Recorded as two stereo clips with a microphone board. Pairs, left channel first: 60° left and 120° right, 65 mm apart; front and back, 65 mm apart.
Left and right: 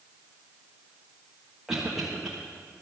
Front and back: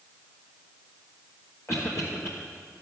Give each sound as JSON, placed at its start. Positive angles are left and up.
{"t": 1.7, "sound": "a cough", "azimuth_deg": -35, "distance_m": 1.3}